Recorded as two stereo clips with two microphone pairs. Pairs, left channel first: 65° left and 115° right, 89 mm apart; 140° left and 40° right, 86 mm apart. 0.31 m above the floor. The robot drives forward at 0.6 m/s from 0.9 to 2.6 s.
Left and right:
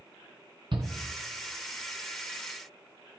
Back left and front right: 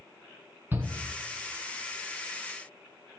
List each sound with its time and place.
0.7 s a shout: 105° right, 2.5 m